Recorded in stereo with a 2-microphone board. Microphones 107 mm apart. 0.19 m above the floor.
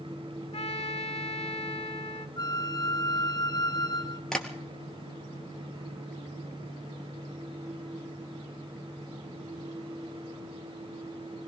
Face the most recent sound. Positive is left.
turn(degrees=5)  # may be behind; listen again after turning